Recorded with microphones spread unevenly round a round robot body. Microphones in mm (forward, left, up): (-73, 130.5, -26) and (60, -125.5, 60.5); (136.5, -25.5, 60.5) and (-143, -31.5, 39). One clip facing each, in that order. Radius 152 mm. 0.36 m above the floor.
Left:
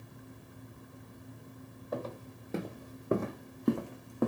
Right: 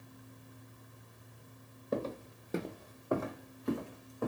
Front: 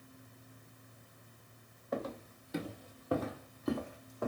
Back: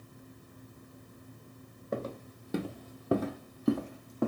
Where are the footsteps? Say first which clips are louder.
Right 3 dB, back 2 dB; 115° right, 0.8 m; by 4.3 s 150° left, 1.0 m.